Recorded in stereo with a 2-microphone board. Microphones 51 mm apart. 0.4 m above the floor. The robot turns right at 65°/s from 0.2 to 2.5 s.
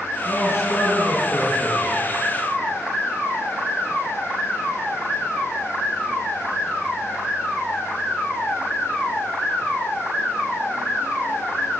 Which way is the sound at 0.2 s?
60° left.